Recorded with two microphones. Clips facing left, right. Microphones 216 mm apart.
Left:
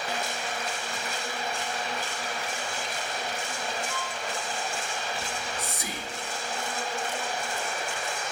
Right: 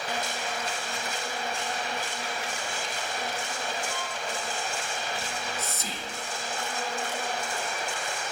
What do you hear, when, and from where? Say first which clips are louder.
3.9 s a violin: even; 35° right (ahead or behind), 6.5 m
5.2 s whispering: even; 15° left (ahead or behind), 0.7 m